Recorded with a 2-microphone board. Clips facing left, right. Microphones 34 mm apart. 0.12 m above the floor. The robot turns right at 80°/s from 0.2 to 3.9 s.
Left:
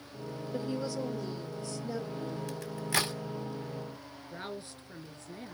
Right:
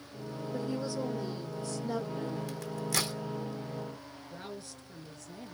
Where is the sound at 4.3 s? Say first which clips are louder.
Left 3 dB; 35° left (ahead or behind), 2 m.